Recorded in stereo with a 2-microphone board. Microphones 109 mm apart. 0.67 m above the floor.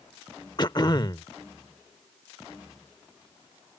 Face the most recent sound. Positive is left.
turn(degrees=40)  # may be behind; listen again after turning